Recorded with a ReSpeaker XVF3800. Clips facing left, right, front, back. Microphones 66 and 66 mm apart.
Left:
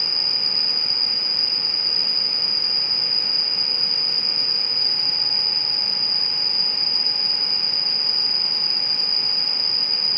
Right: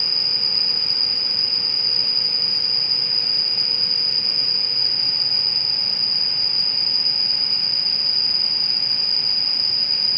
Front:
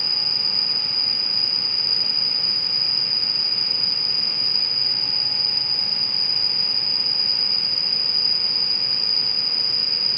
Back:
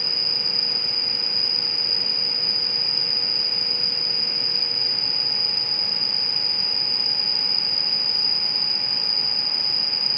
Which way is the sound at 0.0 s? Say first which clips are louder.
Even, even; 20° left.